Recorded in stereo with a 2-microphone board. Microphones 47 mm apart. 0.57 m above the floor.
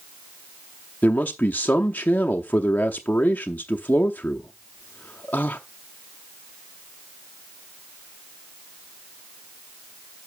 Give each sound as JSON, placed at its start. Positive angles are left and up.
{"t": 1.0, "sound": "a man speaking", "side_deg": 35, "distance_m": 0.7}